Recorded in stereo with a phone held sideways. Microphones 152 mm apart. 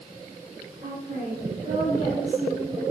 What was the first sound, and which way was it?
A woman speaking, 85° right.